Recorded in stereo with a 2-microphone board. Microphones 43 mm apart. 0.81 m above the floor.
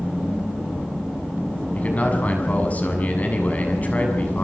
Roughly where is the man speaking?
Left.